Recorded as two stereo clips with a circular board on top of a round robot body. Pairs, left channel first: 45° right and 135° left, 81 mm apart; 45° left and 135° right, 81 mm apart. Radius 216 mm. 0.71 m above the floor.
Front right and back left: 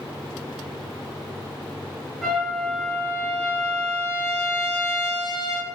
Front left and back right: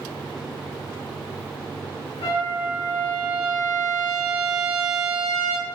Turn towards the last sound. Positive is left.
turn(degrees=45)